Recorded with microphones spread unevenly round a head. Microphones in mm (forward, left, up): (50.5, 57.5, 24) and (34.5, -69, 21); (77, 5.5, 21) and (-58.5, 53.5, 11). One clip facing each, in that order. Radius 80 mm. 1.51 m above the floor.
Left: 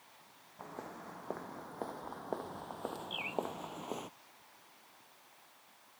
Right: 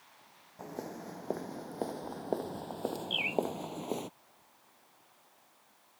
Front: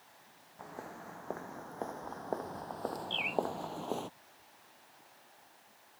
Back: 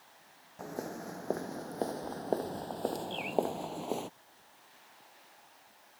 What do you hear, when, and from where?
0.6 s footsteps: 155° right; by 4.1 s 120° right
3.1 s a bird: 85° right